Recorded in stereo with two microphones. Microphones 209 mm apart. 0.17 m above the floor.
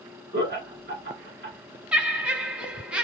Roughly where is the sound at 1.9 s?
Centre.